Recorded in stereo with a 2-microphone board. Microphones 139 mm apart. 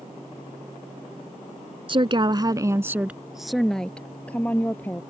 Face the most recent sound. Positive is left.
turn(degrees=15)  # may be behind; listen again after turning